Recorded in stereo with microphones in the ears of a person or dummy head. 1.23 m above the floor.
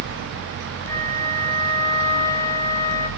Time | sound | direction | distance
0.9 | a flute | 15° left (ahead or behind) | 3 m